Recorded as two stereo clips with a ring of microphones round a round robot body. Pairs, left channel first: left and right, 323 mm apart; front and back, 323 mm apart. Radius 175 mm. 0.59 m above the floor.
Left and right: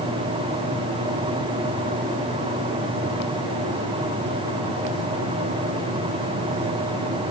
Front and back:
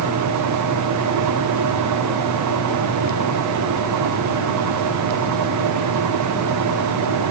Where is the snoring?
No snoring in this recording.